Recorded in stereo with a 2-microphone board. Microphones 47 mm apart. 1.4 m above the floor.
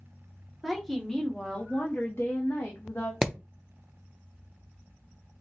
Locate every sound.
0.6 s a woman speaking: centre (ahead or behind), 1.2 m; by 3.1 s 85° left, 0.9 m
3.2 s hammering: 10° right (ahead or behind), 0.5 m